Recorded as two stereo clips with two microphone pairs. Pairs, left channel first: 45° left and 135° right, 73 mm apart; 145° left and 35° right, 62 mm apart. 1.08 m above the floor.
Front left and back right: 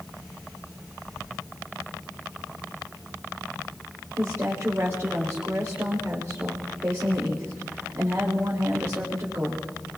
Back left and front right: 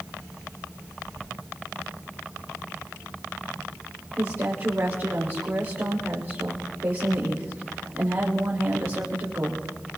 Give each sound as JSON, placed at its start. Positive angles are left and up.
{"t": 4.2, "sound": "a woman speaking", "azimuth_deg": -85, "distance_m": 2.5}